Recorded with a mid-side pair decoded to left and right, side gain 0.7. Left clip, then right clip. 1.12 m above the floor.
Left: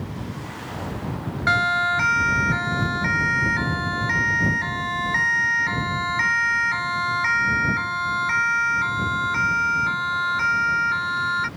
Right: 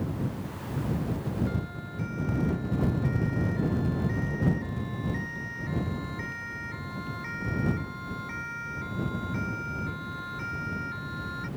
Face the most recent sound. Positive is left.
turn(degrees=55)